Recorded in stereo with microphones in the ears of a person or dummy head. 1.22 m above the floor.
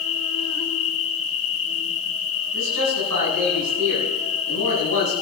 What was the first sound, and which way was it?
An insect, 75° left (ahead or behind).